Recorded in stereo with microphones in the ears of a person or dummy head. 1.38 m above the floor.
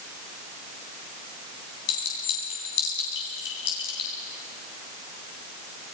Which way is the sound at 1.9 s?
70° left (ahead or behind).